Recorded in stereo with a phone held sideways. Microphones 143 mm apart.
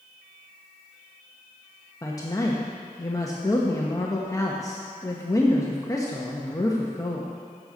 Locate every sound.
2.0 s a woman speaking: 20° left (ahead or behind), 1.0 m